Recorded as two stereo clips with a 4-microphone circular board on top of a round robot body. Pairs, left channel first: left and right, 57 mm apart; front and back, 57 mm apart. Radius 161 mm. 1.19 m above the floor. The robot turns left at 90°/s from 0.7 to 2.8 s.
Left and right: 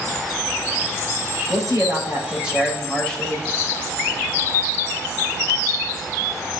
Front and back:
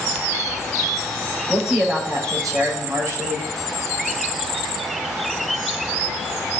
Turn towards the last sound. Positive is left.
turn(degrees=165)